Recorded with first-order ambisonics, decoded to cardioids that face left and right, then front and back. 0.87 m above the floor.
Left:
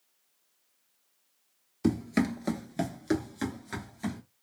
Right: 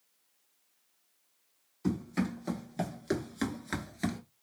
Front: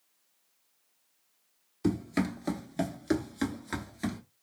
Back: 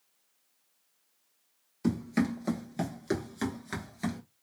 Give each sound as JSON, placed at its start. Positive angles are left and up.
{"t": 1.8, "sound": "running footsteps", "azimuth_deg": 85, "distance_m": 1.1}